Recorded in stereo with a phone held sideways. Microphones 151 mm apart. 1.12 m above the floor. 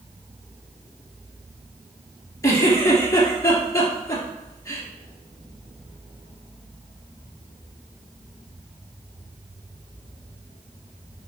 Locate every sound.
2.4 s a giggle: 20° left (ahead or behind), 3 m